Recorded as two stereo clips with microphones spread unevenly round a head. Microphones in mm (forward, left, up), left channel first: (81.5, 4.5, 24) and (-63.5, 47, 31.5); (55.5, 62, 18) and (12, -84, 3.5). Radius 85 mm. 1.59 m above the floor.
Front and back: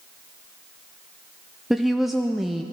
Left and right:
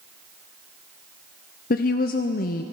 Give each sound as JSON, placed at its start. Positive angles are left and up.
{"t": 1.7, "sound": "a woman speaking", "azimuth_deg": 75, "distance_m": 0.5}